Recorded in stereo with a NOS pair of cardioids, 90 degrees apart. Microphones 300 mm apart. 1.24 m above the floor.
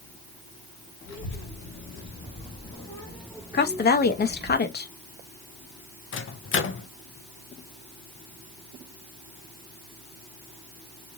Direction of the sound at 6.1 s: 45° left.